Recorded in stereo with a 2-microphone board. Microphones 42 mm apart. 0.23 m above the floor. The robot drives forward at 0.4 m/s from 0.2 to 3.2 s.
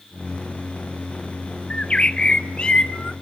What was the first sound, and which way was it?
A bird, 25° left (ahead or behind).